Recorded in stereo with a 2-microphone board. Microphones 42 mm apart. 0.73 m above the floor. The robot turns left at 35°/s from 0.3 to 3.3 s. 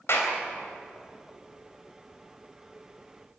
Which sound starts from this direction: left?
A clap, at 0.1 s.